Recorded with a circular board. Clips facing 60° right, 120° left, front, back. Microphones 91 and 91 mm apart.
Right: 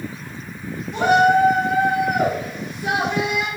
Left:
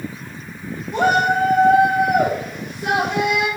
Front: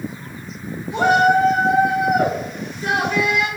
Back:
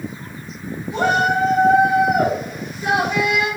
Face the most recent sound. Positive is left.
turn(degrees=115)